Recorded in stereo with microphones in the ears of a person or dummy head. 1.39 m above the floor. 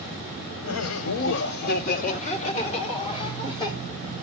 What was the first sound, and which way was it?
Laughter, 75° left (ahead or behind).